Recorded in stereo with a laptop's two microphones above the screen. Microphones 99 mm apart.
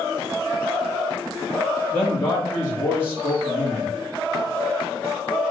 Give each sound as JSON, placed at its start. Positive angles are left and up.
{"t": 1.9, "sound": "a man speaking", "side_deg": 20, "distance_m": 1.5}